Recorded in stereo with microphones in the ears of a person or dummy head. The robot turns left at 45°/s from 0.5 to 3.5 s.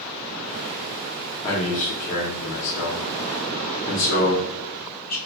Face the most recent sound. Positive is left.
turn(degrees=50)  # may be behind; listen again after turning